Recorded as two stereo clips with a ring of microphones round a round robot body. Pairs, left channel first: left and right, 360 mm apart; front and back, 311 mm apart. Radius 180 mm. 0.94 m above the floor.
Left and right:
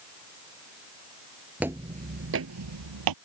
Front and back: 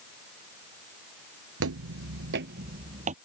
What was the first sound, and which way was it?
Footsteps, 175° right.